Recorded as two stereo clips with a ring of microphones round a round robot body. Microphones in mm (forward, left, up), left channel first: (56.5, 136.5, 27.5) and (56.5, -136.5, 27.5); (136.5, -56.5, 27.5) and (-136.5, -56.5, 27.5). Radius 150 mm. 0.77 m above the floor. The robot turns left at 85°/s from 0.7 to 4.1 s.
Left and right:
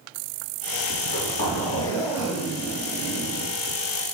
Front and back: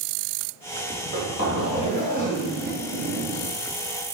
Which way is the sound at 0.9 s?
95° left.